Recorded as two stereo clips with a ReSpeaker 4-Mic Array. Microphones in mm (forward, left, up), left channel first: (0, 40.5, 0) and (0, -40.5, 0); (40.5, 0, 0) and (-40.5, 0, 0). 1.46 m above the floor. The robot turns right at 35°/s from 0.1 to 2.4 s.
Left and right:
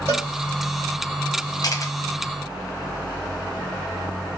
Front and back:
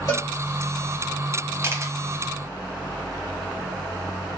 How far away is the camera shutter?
About 0.6 m.